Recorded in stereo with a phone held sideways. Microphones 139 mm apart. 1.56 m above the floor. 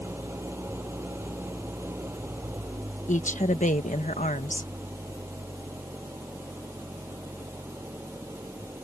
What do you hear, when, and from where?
0.0 s an engine running: 15° right (ahead or behind)
3.1 s a woman speaking: 65° left (ahead or behind)